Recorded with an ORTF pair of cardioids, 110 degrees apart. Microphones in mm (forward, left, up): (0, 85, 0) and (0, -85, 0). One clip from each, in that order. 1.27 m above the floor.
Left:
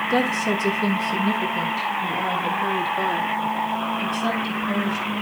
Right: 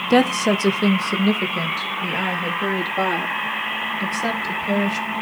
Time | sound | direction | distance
0.1 | a woman speaking | 40° right | 0.7 m